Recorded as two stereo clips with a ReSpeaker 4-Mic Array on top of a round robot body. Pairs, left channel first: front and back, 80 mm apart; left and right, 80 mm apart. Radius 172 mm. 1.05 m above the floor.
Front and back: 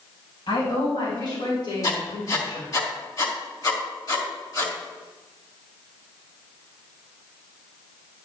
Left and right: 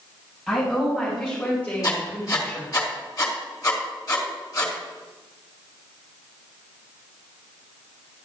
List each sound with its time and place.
0.5 s a woman speaking: 5° left, 5 m; by 2.7 s 30° left, 3.5 m
1.8 s writing: 45° left, 2.5 m